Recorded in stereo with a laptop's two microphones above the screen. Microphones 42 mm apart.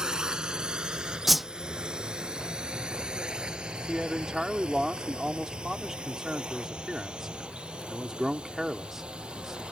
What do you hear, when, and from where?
0.0 s a drone: 20° right (ahead or behind); by 9.7 s 25° right (ahead or behind)
1.3 s a whoosh: 5° right (ahead or behind)
3.9 s a man speaking: 10° right (ahead or behind)